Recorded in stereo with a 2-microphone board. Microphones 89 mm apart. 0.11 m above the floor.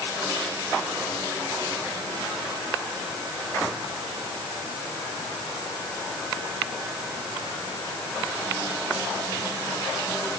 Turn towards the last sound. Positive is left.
No sound to turn to.